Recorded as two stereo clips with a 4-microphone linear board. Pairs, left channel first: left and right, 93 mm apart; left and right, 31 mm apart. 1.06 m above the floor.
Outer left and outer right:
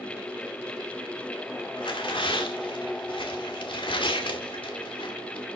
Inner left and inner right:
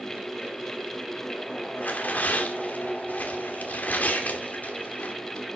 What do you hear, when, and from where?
1.8 s tearing paper: 75° left (ahead or behind), 2.5 m